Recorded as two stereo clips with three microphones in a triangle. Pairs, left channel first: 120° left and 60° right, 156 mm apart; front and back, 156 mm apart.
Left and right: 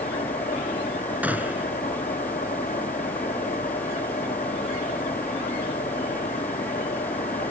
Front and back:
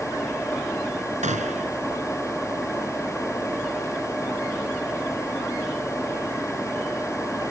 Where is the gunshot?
140° right.